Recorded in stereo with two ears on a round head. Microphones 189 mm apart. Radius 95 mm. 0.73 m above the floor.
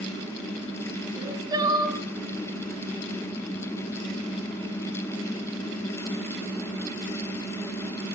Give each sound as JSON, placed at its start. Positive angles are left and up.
{"t": 1.1, "sound": "crying", "side_deg": -20, "distance_m": 3.0}